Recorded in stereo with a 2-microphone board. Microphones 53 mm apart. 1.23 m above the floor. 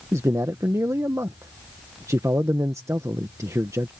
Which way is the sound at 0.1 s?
65° right (ahead or behind).